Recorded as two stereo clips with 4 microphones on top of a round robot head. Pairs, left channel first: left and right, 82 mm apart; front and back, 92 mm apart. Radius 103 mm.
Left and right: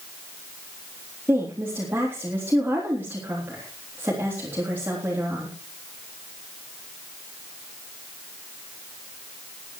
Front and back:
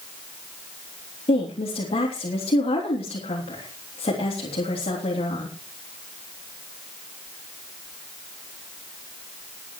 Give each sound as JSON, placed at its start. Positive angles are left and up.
{"t": 1.3, "sound": "a woman speaking", "azimuth_deg": -15, "distance_m": 3.5}